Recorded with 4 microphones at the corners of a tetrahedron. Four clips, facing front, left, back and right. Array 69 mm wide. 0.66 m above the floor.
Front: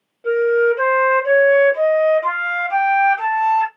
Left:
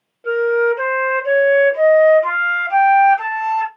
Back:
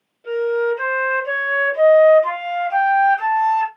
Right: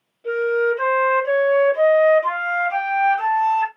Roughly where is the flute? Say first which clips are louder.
Left 4 dB, front 4 dB; ahead left.